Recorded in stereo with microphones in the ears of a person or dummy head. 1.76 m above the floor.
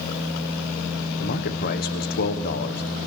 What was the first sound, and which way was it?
A man speaking, 50° left (ahead or behind).